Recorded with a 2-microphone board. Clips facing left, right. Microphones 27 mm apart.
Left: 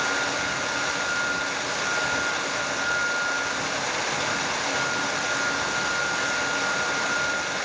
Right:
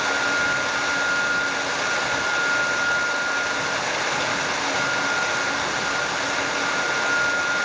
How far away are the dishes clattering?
I don't hear dishes clattering.